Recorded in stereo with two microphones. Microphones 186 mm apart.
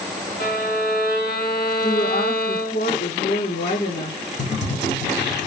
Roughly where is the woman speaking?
Left.